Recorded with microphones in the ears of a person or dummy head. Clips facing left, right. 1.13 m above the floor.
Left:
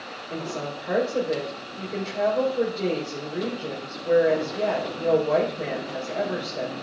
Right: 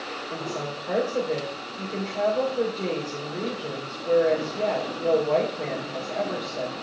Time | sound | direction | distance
0.3 | a woman speaking | 10° left (ahead or behind) | 3 m